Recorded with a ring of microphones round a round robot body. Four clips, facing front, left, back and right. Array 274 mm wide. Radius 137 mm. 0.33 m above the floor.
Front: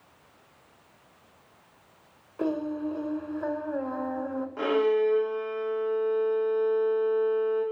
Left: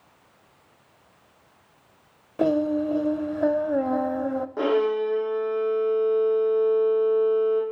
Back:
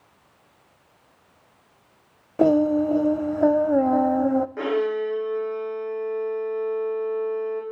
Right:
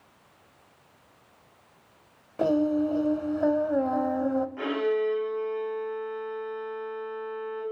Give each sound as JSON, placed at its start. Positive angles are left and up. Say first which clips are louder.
{"t": 2.4, "sound": "singing", "louder": "left 1 dB, back 11 dB", "azimuth_deg": 165, "distance_m": 0.7}
{"t": 4.6, "sound": "a violin", "louder": "left 4 dB, even", "azimuth_deg": 110, "distance_m": 5.0}